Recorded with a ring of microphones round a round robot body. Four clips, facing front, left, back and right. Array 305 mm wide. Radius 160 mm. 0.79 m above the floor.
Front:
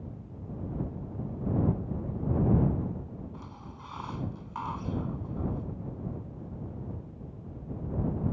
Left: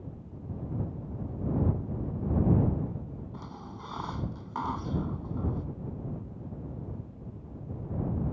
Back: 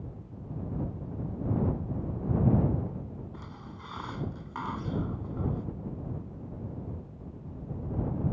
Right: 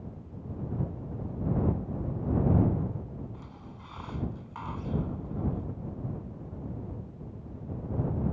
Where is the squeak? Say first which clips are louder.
Left 4 dB, even; 110° left.